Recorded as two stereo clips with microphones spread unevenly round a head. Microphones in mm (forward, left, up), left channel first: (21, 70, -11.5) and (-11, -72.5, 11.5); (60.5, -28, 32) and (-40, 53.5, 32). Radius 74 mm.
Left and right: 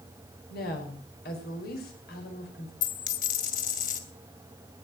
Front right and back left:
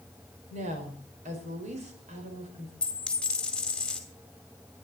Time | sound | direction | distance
0.5 | a woman speaking | 105° left | 5 m
2.8 | a dropped coin | 45° left | 2.5 m